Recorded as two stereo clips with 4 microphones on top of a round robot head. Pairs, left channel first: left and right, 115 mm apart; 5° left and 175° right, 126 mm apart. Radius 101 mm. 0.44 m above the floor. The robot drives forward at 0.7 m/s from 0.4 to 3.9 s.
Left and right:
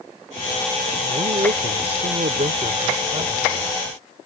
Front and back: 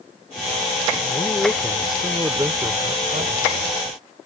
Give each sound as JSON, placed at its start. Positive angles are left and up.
{"t": 1.1, "sound": "a man speaking", "azimuth_deg": -55}